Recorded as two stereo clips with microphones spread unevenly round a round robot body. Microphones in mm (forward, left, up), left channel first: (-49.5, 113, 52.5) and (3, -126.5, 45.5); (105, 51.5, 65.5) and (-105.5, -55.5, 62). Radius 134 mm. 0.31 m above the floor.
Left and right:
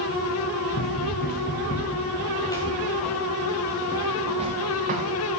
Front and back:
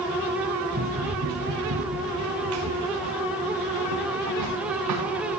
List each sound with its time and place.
0.7 s running footsteps: 150° left, 2.5 m; by 5.3 s 130° right, 2.5 m